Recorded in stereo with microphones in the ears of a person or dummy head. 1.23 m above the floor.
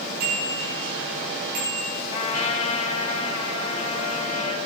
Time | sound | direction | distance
0.2 | a bicycle bell | 55° right (ahead or behind) | 9.5 m
2.1 | a trumpet | 30° left (ahead or behind) | 2.5 m